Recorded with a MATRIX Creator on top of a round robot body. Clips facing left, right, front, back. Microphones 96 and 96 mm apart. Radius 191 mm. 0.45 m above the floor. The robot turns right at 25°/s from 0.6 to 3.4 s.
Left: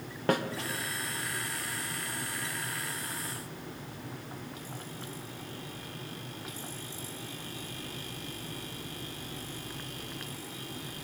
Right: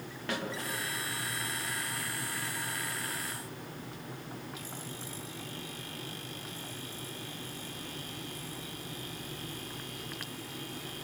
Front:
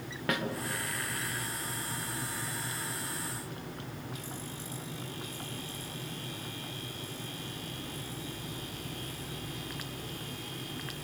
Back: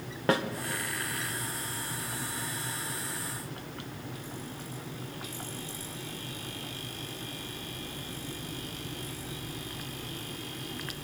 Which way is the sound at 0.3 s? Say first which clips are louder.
Left 8 dB, back 6 dB; 125° left.